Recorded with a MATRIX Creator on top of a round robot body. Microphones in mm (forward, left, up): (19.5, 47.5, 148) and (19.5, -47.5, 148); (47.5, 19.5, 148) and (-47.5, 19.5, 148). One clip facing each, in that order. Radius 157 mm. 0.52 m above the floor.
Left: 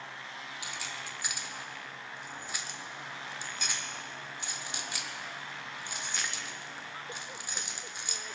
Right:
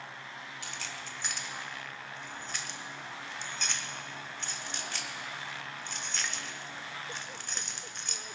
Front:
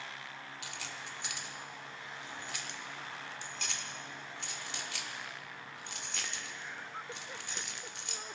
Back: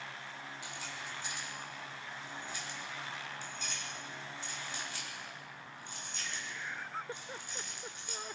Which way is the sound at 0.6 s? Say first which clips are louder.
Left 1 dB, even; 10° left.